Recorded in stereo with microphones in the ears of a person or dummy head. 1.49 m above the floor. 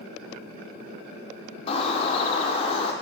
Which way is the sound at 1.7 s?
35° left (ahead or behind).